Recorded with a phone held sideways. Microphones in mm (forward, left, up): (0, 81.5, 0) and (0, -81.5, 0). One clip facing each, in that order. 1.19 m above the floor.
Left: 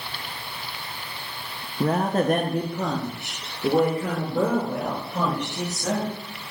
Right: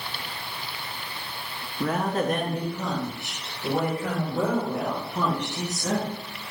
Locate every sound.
1.8 s a woman speaking: 30° left (ahead or behind), 0.6 m; by 6.1 s 85° left, 3 m